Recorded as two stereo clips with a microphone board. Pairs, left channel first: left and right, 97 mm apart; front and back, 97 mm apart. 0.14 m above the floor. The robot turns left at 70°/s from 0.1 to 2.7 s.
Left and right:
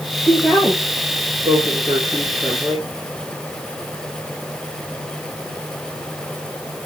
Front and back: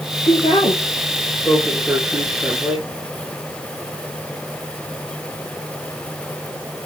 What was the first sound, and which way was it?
A woman speaking, 25° left.